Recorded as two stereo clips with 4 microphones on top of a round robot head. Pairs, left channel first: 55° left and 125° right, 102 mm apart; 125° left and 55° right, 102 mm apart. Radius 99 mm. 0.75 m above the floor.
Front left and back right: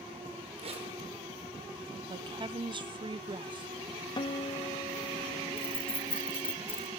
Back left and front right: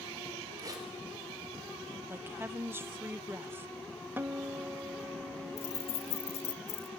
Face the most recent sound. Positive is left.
turn(degrees=120)